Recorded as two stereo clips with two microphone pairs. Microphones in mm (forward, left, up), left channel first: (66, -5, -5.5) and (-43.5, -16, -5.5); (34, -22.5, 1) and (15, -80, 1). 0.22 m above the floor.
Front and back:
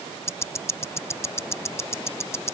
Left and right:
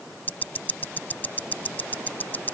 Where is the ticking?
45° left.